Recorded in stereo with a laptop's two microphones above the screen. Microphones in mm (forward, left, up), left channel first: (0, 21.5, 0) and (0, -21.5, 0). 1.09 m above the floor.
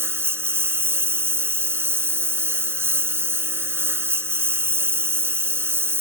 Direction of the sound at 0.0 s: 65° right (ahead or behind).